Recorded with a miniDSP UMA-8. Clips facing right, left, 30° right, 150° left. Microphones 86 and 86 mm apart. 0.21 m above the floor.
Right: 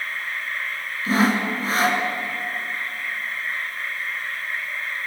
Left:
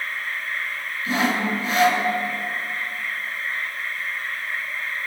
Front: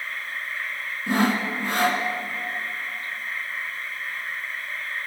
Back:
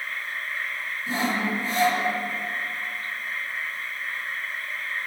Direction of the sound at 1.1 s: 45° right.